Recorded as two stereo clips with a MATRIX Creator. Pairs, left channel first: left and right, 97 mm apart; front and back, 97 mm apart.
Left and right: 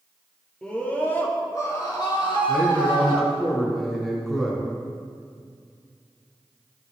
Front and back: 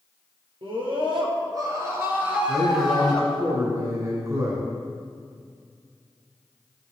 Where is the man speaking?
170° left, 1.9 m.